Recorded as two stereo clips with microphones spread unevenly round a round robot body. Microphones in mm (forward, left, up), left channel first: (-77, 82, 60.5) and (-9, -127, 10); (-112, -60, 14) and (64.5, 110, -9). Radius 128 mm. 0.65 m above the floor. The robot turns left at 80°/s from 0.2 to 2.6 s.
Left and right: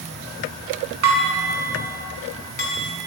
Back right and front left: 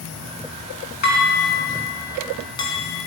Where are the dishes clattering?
80° right, 4 m; by 3.1 s 150° left, 4 m.